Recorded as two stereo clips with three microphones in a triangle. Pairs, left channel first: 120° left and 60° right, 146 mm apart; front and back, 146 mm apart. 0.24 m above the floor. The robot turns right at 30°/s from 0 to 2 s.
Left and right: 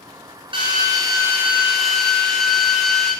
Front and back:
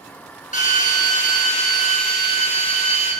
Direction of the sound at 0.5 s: 10° right.